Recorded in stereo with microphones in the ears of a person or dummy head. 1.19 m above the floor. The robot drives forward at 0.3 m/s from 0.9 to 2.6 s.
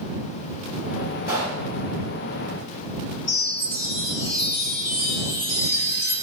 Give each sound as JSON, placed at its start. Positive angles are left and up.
{"t": 1.3, "sound": "a pop", "side_deg": -15, "distance_m": 1.0}
{"t": 3.3, "sound": "a chime", "side_deg": 45, "distance_m": 1.3}